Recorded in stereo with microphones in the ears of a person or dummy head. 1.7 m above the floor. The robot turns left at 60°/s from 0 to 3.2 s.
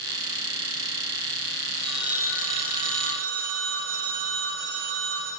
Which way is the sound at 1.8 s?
10° left.